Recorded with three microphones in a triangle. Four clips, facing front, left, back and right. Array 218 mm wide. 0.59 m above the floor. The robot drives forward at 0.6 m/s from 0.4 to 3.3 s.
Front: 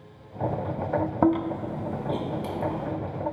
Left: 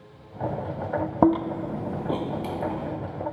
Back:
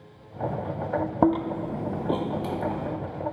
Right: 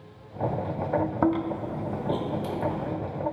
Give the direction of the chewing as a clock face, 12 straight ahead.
8 o'clock.